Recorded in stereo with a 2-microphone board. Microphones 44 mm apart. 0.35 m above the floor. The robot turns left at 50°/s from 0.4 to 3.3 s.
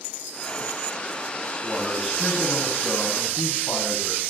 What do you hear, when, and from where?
1.6 s a man speaking: 170° right, 2 m; by 4.2 s 110° left, 2 m